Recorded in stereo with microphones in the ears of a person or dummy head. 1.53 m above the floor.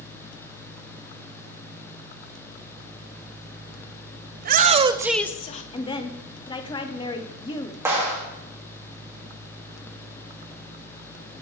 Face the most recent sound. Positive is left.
turn(degrees=-15)  # may be behind; listen again after turning